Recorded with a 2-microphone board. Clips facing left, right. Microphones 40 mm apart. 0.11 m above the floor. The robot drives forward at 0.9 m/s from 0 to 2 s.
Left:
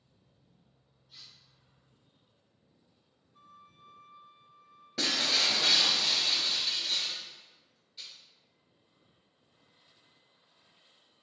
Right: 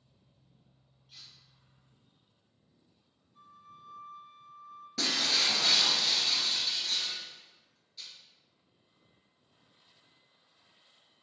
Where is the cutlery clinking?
55° right (ahead or behind), 1.7 m; by 1.3 s 60° right (ahead or behind), 1.7 m.